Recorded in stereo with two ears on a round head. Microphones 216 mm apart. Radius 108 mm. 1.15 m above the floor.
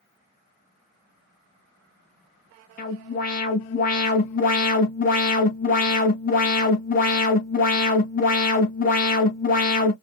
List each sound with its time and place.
2.8 s an alarm: 35° left (ahead or behind), 1.1 m